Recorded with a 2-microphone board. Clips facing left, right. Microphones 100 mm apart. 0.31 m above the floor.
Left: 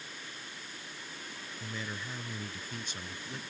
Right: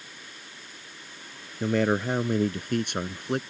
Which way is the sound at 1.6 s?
75° right (ahead or behind).